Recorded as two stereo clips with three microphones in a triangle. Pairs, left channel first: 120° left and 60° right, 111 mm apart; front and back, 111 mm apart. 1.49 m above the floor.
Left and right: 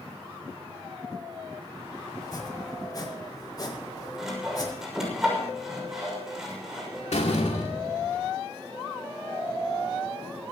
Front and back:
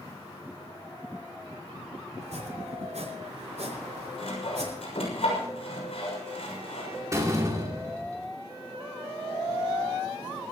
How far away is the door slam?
About 2.5 m.